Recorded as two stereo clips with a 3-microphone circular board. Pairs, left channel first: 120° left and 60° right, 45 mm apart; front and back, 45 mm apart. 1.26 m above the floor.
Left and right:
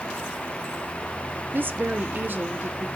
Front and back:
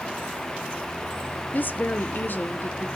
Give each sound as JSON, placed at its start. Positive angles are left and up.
{"t": 1.5, "sound": "a woman speaking", "azimuth_deg": -35, "distance_m": 1.0}